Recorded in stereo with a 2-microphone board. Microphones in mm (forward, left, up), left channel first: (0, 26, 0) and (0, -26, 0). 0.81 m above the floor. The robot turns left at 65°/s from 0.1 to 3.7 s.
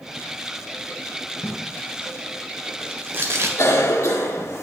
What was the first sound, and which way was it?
Tape being pulled, 65° left (ahead or behind).